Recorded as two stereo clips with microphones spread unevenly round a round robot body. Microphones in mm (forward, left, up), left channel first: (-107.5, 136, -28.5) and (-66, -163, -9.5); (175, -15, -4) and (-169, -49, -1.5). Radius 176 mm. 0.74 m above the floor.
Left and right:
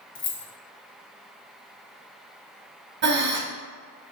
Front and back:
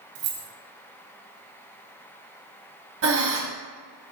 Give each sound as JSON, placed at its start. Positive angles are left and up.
{"t": 0.1, "sound": "keys jangling", "azimuth_deg": 150, "distance_m": 0.7}
{"t": 3.0, "sound": "breathing", "azimuth_deg": -130, "distance_m": 0.8}